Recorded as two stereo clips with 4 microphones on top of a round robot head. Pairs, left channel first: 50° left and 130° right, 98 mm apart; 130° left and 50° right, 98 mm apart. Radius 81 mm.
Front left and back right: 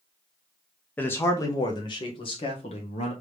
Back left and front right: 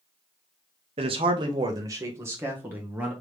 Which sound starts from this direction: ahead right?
A man speaking, at 1.0 s.